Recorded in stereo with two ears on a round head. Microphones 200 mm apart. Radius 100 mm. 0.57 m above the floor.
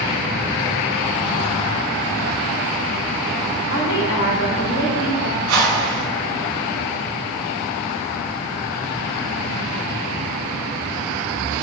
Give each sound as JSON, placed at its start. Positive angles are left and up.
{"t": 3.7, "sound": "a woman speaking", "side_deg": 55, "distance_m": 1.8}
{"t": 5.5, "sound": "a whoosh", "side_deg": -60, "distance_m": 1.7}